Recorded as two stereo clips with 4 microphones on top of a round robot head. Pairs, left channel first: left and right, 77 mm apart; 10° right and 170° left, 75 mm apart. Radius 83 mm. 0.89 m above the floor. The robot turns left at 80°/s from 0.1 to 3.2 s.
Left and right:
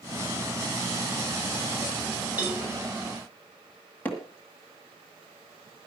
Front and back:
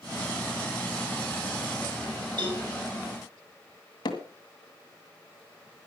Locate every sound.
2.4 s a cowbell: 160° right, 5.5 m; by 2.7 s 175° left, 5.5 m
4.0 s hammering: 15° left, 1.8 m